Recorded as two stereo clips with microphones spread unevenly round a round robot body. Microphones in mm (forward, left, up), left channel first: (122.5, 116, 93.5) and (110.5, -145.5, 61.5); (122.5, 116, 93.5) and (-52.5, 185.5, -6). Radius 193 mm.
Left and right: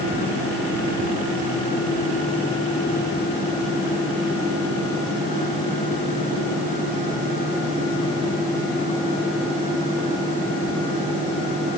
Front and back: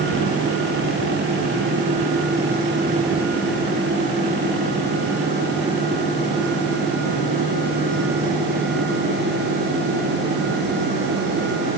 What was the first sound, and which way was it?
Only background noise.